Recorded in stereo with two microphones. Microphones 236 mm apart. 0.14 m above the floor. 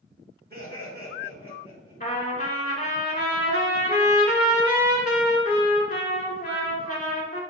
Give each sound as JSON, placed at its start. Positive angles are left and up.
{"t": 0.5, "sound": "laughter", "side_deg": -40, "distance_m": 1.9}
{"t": 2.0, "sound": "a trumpet", "side_deg": 35, "distance_m": 0.9}